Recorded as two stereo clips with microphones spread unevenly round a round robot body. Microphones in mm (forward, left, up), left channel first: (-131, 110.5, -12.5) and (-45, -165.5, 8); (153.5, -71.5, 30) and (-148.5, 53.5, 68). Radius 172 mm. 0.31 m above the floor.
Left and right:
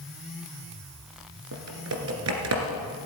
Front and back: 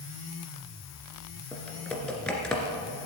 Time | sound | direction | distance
1.5 | typing on a keyboard | 110° right | 1.9 m